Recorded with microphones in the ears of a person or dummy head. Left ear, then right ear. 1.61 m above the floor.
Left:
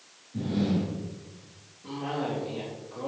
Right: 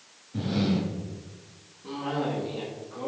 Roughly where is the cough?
Centre.